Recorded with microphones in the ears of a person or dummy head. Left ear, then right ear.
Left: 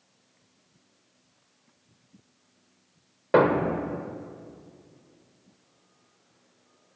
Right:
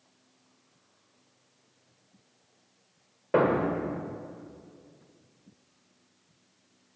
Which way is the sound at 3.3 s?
30° left (ahead or behind).